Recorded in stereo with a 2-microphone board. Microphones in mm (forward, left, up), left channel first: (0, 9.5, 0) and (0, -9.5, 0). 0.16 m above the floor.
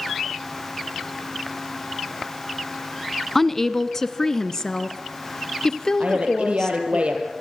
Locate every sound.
3.4 s a woman speaking: 10° left (ahead or behind), 1.1 m; by 7.0 s 30° left (ahead or behind), 3 m
6.0 s a woman speaking: 75° right (ahead or behind), 5 m